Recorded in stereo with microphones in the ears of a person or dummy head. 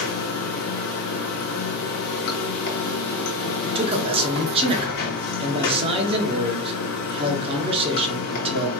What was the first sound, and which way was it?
Running water, 50° left (ahead or behind).